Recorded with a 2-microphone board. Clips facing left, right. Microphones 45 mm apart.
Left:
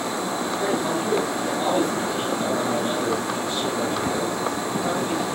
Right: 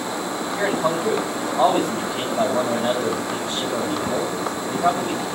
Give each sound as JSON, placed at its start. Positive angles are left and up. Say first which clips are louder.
{"t": 0.6, "sound": "a man speaking", "louder": "right 4 dB", "side_deg": -70, "distance_m": 4.5}